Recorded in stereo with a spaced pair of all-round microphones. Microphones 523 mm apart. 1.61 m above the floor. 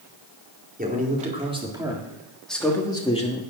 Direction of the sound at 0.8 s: 15° right (ahead or behind).